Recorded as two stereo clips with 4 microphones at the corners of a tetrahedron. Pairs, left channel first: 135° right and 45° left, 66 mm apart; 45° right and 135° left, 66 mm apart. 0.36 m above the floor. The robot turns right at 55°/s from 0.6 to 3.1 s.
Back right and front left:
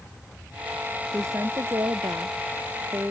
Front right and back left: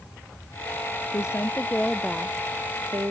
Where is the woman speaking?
5° right; by 3.1 s 105° left.